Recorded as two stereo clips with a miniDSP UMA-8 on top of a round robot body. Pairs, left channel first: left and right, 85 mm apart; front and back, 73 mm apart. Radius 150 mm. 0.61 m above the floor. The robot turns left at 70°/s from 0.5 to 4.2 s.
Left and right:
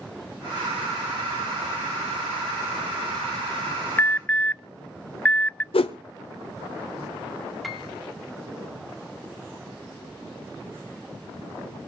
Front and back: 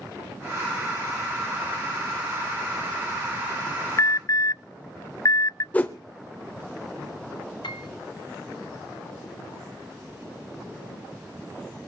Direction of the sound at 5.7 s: 75° left.